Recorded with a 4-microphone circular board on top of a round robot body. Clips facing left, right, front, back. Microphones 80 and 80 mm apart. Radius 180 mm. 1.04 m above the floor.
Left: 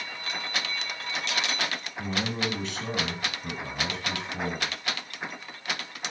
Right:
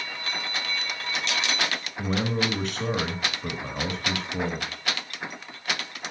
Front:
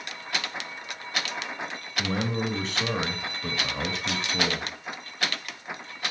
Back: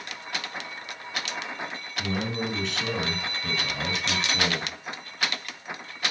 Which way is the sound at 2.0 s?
55° right.